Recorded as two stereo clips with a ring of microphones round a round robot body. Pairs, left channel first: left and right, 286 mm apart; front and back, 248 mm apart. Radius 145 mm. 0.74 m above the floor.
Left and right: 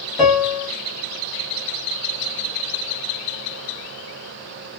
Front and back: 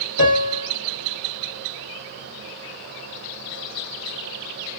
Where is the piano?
Straight ahead, 1.2 m.